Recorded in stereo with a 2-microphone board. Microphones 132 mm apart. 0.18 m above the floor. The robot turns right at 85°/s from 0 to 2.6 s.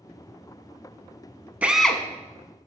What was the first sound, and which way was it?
A drill, 15° right.